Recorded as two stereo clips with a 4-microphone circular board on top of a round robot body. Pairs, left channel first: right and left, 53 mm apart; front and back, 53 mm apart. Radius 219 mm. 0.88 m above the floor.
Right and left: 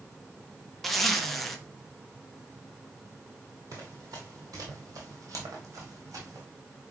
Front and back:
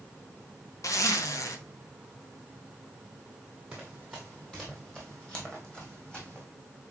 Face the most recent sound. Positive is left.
turn(degrees=70)